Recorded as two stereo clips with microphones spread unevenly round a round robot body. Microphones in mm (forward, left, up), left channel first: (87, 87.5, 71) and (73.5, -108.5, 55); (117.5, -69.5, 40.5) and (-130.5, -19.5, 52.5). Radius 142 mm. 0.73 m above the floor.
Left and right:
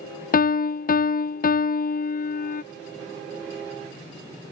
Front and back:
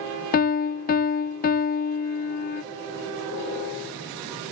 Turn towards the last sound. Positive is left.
turn(degrees=40)